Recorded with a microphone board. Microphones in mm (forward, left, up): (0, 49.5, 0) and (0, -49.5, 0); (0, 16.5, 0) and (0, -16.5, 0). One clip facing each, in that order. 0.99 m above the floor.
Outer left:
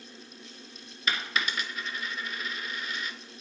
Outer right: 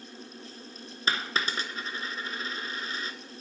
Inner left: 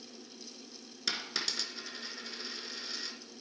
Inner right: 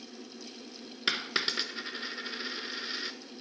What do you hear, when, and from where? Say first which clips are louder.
1.1 s a dropped coin: outer right 1 dB, inner right 5 dB; 35° right (ahead or behind), 1.6 m